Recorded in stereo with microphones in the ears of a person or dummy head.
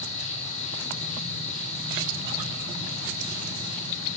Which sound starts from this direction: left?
An insect, at 0.0 s.